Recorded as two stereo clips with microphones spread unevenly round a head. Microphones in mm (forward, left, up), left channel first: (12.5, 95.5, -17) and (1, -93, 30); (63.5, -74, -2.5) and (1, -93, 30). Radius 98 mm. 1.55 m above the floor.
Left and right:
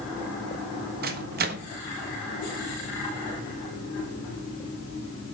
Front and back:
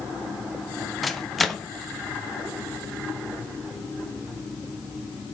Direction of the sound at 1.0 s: 90° right.